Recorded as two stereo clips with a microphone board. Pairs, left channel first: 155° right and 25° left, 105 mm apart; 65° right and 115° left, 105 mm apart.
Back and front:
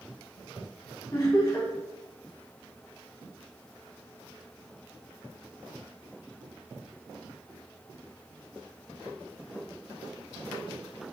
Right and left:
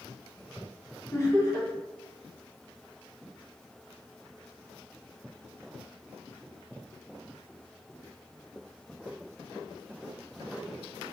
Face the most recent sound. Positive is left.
turn(degrees=-115)